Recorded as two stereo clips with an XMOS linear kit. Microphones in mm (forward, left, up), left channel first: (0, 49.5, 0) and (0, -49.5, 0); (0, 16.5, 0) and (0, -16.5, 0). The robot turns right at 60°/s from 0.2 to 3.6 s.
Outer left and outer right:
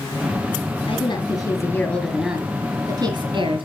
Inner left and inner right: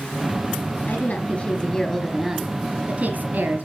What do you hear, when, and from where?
0.9 s a woman speaking: 105° left, 2.5 m; by 3.7 s 90° right, 2.5 m